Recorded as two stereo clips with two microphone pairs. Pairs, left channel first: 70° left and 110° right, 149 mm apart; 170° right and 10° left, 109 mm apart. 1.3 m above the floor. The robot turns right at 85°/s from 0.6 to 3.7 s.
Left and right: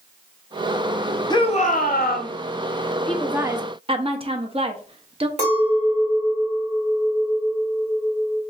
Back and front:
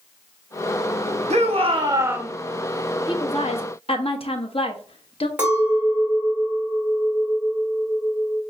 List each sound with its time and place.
1.3 s a shout: 10° left, 0.8 m; by 2.3 s 95° left, 0.8 m
3.1 s a woman speaking: 150° left, 0.7 m; by 5.3 s 155° right, 0.7 m
5.4 s a clink: 70° right, 2 m